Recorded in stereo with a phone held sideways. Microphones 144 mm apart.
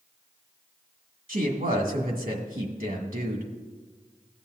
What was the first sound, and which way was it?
A woman speaking, 75° right (ahead or behind).